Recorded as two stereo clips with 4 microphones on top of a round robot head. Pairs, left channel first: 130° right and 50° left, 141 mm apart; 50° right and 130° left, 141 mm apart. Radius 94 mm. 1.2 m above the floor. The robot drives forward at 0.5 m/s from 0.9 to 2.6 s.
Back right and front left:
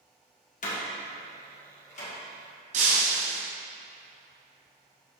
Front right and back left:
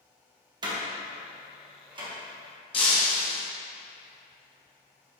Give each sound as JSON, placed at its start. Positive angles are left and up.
{"t": 0.6, "sound": "a door slam", "azimuth_deg": -165, "distance_m": 1.4}
{"t": 2.7, "sound": "breaking glass", "azimuth_deg": 5, "distance_m": 1.3}